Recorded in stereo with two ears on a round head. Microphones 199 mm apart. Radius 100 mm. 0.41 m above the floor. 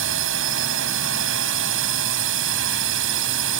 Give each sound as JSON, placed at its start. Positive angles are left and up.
{"t": 0.0, "sound": "a drone", "side_deg": -60}